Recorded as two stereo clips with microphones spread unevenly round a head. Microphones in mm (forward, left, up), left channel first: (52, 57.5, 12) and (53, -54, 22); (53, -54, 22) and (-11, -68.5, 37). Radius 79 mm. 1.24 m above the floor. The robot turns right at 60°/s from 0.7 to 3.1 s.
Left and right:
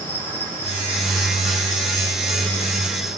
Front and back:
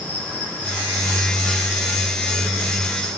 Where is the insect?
40° left, 1.0 m; by 3.2 s 175° right, 1.0 m.